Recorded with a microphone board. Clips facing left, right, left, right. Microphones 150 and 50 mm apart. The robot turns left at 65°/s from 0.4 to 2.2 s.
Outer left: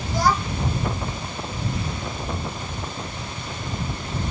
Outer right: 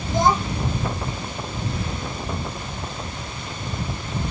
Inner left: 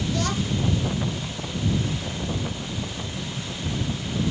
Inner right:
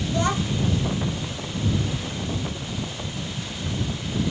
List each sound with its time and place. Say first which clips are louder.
0.1 s a child speaking: outer right 2 dB, inner right 4 dB; 20° right (ahead or behind); by 0.7 s 5° right (ahead or behind)